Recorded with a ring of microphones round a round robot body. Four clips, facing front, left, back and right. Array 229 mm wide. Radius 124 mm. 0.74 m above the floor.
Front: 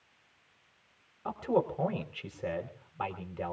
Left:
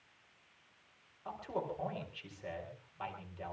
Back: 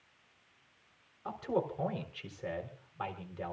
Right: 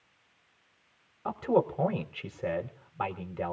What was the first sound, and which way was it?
A man speaking, 75° right.